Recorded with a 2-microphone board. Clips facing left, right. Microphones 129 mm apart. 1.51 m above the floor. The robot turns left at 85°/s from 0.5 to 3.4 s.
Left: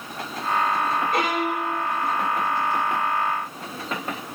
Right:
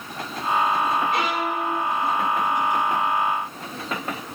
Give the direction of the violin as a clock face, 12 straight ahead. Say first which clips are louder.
Left 1 dB; 8 o'clock.